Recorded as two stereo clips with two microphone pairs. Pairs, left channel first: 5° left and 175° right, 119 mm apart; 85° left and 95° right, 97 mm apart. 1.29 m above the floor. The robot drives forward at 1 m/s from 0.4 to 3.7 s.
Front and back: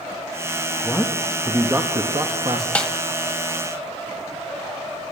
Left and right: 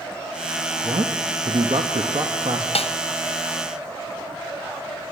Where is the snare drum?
85° left, 0.7 m; by 2.9 s 100° left, 0.7 m.